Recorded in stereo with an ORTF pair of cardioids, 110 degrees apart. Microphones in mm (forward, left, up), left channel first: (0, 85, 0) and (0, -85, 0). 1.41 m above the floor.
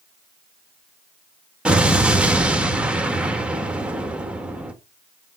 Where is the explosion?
5° right, 2.0 m.